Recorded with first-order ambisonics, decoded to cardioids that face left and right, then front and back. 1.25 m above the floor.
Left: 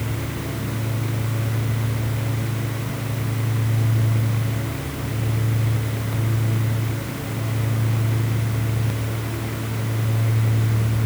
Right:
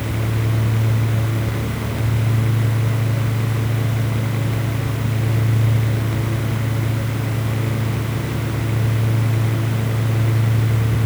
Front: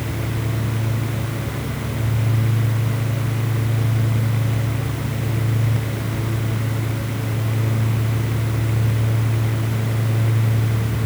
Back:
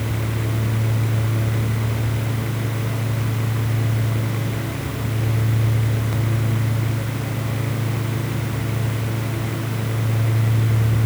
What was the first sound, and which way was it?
Only background noise.